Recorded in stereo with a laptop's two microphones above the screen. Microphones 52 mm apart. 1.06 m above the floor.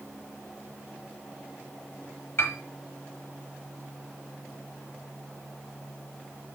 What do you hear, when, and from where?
2.4 s a piano: 50° left (ahead or behind), 1.3 m